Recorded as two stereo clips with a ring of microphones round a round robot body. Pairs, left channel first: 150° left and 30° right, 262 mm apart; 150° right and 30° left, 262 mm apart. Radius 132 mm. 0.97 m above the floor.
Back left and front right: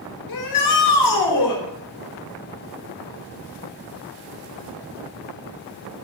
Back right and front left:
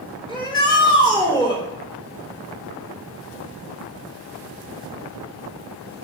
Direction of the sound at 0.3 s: 135° left.